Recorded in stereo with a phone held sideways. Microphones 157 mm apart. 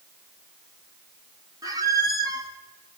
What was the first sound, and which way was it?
A squeak, 20° right (ahead or behind).